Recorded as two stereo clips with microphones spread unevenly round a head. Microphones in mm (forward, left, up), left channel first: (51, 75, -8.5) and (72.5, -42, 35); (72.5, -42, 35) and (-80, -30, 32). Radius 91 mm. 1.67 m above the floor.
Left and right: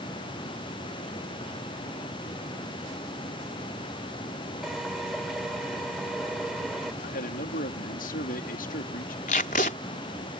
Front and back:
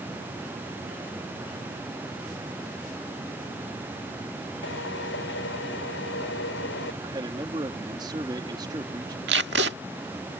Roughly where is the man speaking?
Left.